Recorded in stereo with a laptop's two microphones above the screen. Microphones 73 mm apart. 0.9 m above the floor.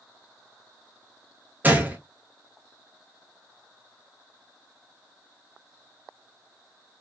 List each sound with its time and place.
1.6 s a gunshot: 20° right (ahead or behind), 0.8 m